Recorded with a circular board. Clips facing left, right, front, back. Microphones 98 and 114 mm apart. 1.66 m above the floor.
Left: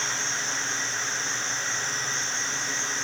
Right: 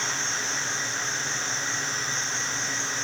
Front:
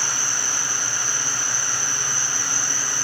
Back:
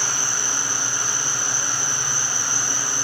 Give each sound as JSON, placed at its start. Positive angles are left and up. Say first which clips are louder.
{"t": 0.0, "sound": "an insect", "louder": "right 1 dB, back 1 dB", "azimuth_deg": -135, "distance_m": 4.5}